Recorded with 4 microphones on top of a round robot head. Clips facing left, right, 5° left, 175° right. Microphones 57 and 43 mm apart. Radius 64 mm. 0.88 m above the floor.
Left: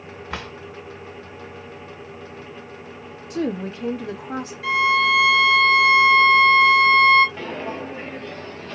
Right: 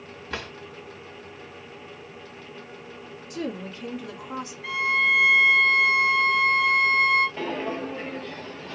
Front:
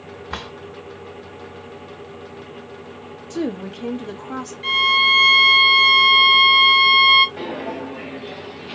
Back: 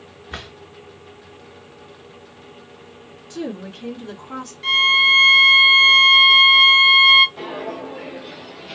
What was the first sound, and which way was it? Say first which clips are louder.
A drawer: left 2 dB, front 3 dB; 20° left.